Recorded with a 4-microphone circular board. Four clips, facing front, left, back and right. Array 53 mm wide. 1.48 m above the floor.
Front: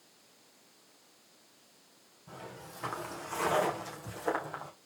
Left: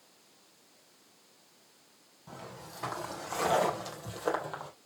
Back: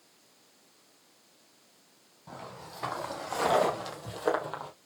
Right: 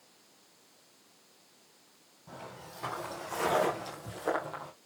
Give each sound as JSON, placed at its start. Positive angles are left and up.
{"t": 2.3, "sound": "footsteps", "azimuth_deg": 170, "distance_m": 4.0}